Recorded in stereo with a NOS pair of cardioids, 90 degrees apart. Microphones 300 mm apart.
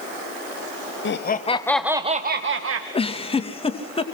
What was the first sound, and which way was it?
Laughter, 40° left.